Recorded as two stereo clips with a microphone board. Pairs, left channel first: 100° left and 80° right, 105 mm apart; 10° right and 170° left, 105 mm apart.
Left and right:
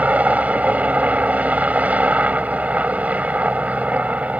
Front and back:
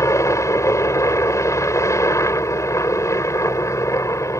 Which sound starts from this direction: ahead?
A helicopter, at 0.0 s.